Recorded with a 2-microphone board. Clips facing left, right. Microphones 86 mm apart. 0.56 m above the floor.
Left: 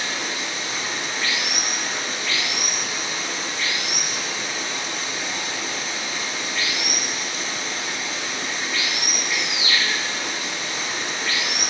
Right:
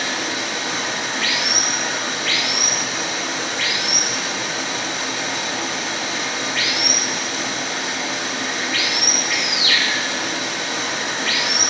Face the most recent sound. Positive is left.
turn(degrees=-80)